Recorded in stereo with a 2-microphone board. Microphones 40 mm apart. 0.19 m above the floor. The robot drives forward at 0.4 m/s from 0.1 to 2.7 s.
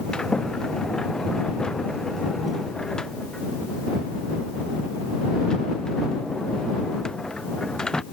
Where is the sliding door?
20° left (ahead or behind); by 8.0 s 15° left (ahead or behind).